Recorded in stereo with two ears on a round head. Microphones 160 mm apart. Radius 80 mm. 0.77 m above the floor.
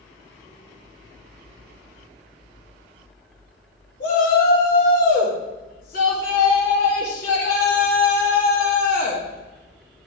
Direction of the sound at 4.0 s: 50° left (ahead or behind).